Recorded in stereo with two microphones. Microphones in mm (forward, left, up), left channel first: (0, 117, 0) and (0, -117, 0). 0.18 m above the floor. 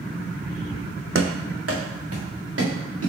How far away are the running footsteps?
About 0.6 m.